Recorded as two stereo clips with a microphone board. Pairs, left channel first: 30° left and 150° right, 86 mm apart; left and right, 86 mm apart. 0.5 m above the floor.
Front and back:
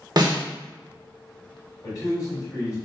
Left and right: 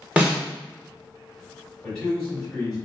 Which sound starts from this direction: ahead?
A man speaking, at 1.8 s.